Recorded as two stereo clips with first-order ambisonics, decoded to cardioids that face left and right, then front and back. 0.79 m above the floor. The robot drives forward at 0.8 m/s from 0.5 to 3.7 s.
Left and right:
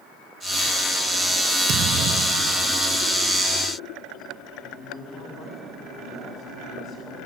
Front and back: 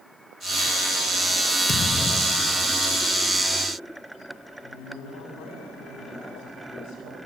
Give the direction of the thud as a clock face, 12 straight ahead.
2 o'clock.